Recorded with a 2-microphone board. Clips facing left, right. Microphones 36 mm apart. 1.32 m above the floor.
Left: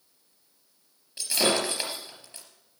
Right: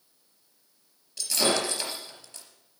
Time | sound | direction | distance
1.2 | breaking glass | 25° left (ahead or behind) | 3.5 m